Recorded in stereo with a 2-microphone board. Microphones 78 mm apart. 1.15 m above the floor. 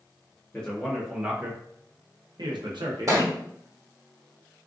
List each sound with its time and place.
0.5 s a man speaking: 15° left (ahead or behind), 0.8 m; by 3.2 s 85° right, 1.1 m
3.1 s a thud: 45° right (ahead or behind), 1.1 m